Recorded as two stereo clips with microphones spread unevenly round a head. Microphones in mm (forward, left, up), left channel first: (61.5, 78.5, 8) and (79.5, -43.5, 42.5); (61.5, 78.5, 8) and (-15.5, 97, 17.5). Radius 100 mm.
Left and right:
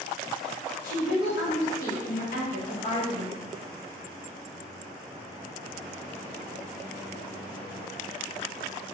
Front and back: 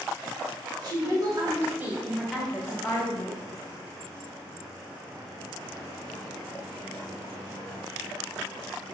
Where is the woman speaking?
145° left, 1.3 m; by 3.4 s 45° left, 1.4 m.